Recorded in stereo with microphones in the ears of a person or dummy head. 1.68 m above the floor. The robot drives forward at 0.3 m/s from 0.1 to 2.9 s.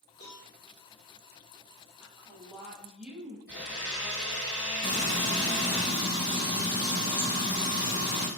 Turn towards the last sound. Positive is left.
turn(degrees=25)  # may be behind; listen again after turning